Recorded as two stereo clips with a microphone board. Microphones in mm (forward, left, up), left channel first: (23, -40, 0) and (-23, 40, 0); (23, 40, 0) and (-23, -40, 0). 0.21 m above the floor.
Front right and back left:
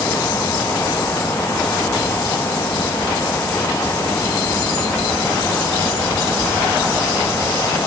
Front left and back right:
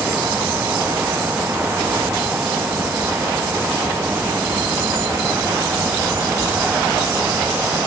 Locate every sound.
Only background noise.